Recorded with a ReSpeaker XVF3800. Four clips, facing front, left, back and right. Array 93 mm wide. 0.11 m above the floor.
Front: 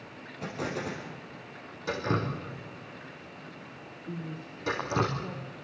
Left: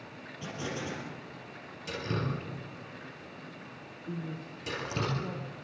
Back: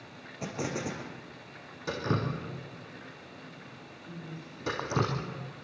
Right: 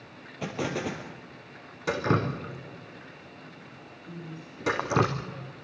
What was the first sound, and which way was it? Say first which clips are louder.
An explosion: right 6 dB, even; 105° right.